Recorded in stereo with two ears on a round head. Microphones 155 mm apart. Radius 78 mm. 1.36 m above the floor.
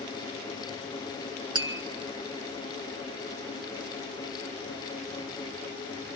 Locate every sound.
1.6 s tapping: 30° right (ahead or behind), 1.9 m